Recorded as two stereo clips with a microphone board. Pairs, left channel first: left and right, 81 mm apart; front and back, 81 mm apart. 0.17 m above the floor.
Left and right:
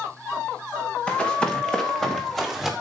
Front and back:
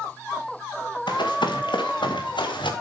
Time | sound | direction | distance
1.1 | running footsteps | 15° left | 3 m